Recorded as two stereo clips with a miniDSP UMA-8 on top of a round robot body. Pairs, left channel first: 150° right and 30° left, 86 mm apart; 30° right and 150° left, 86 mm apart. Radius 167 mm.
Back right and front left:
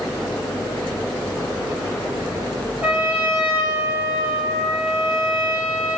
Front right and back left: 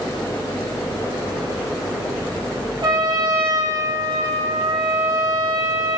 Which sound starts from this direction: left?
A trumpet, at 2.8 s.